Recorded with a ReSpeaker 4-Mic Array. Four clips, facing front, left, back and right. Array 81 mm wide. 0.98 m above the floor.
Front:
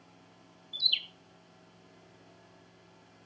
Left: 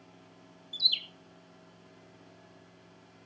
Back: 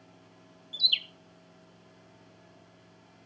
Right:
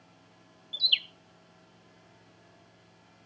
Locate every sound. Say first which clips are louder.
0.7 s a bird: right 5 dB, back 3 dB; 100° right, 0.6 m